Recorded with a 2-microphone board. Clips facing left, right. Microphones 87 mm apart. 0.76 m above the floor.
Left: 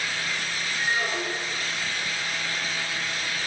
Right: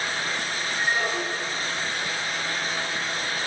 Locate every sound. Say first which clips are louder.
0.8 s a squeak: right 2 dB; 50° right (ahead or behind), 2.5 m